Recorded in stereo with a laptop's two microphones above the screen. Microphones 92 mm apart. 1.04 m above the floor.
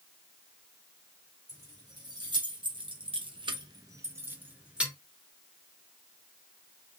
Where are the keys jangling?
45° right (ahead or behind), 1.4 m; by 4.9 s 10° right (ahead or behind), 1.1 m.